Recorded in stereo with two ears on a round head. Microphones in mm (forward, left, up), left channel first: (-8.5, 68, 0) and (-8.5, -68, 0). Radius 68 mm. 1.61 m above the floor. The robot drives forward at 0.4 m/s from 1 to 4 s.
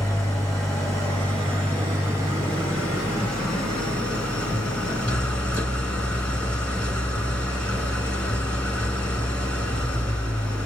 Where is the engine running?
5° left (ahead or behind), 4 m.